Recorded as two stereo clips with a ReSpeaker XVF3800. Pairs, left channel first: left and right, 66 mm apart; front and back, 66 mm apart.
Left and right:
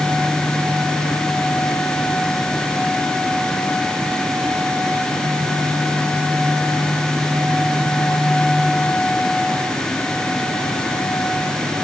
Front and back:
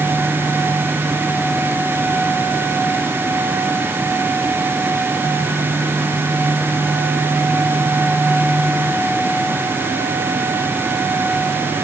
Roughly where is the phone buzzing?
I don't hear a phone buzzing.